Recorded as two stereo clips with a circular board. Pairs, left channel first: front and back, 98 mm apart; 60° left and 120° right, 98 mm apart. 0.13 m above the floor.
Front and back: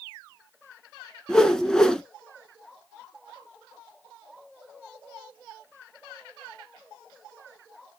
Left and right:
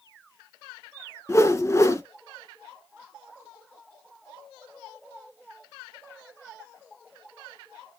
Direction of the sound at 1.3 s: 75° left.